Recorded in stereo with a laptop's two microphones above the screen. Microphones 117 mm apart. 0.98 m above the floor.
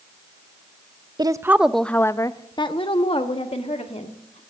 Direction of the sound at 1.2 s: 35° right (ahead or behind).